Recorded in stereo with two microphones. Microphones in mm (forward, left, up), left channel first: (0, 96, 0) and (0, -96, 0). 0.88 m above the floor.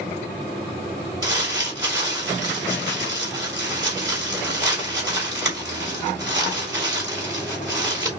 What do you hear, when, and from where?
1.2 s crumpling: 20° right (ahead or behind), 3 m